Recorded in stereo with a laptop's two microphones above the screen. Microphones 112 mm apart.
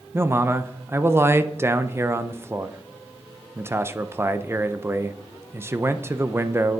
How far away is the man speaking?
About 0.5 m.